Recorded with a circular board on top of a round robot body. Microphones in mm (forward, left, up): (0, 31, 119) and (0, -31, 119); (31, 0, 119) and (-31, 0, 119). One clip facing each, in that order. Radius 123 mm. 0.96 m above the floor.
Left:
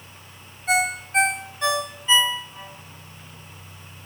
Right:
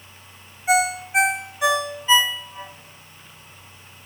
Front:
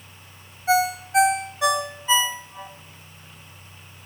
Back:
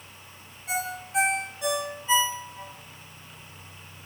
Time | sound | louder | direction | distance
0.7 | a ringtone | right 3 dB, front 11 dB | 10° right | 1.3 m